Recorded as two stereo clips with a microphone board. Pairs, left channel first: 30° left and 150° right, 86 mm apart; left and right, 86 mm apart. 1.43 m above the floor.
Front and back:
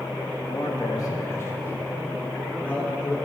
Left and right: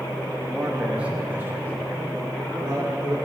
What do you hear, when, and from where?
0.5 s a man speaking: straight ahead, 2.5 m; by 3.1 s 45° right, 5.5 m